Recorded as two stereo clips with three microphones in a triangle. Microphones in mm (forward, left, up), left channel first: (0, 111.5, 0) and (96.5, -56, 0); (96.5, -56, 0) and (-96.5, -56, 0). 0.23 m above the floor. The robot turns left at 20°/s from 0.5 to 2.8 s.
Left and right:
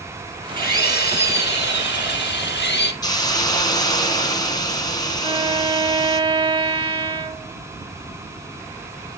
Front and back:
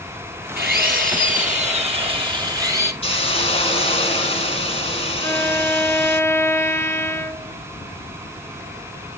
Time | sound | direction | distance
0.6 | a drill | 155° left | 1.9 m
3.0 | a hiss | 55° left | 1.7 m
5.2 | a violin | 55° right | 0.9 m